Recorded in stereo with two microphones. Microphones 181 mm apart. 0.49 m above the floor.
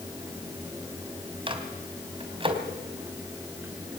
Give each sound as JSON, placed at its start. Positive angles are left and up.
{"t": 1.5, "sound": "a microwave", "side_deg": -30, "distance_m": 3.0}